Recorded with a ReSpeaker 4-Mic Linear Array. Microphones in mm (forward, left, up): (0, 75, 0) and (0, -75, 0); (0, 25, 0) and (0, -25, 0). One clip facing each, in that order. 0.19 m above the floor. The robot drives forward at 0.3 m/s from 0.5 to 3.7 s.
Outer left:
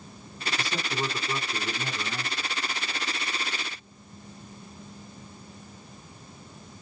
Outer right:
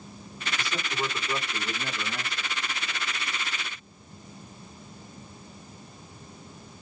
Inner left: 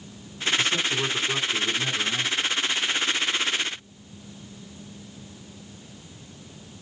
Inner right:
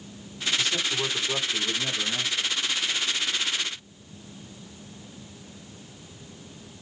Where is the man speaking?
25° left (ahead or behind), 1.3 m; by 2.5 s 20° left (ahead or behind), 1.6 m.